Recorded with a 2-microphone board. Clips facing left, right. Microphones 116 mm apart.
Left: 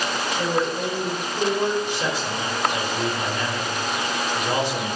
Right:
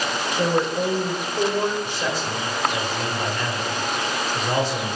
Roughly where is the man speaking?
Centre.